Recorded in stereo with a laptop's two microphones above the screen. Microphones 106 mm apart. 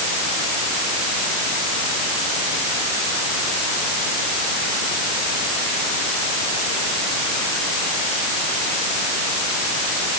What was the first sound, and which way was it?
Only background noise.